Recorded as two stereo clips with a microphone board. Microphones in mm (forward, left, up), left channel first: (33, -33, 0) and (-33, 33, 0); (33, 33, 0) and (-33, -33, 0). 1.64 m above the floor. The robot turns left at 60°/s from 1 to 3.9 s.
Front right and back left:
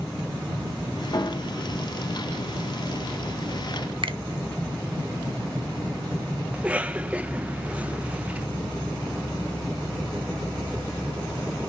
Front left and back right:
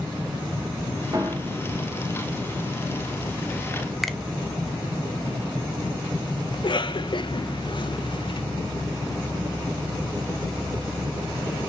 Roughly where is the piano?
Right.